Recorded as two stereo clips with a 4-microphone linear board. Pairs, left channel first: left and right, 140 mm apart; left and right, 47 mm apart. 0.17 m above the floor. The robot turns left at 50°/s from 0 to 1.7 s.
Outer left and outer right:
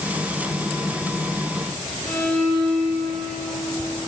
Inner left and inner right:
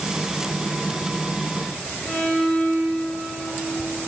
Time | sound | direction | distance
2.0 | a violin | 25° left (ahead or behind) | 7 m